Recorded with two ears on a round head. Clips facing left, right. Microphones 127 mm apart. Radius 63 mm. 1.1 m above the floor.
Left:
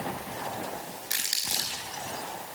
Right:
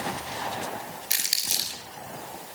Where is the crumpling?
25° right (ahead or behind), 5 m.